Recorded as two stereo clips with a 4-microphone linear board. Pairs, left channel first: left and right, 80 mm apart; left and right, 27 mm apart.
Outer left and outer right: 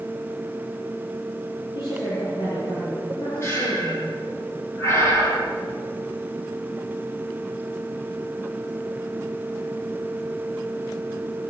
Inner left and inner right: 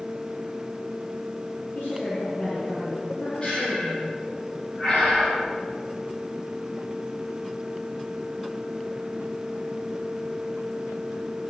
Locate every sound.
1.8 s a woman speaking: 70° left (ahead or behind), 9.5 m
3.4 s breathing: 35° left (ahead or behind), 7.5 m